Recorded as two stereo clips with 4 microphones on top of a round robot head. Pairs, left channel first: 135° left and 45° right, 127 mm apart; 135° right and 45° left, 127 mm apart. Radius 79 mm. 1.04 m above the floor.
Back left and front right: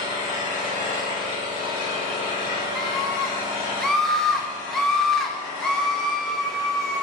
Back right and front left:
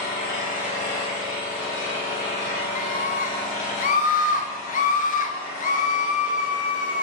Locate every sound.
0.0 s an engine running: 165° right, 5 m
2.8 s a scream: 140° right, 1.5 m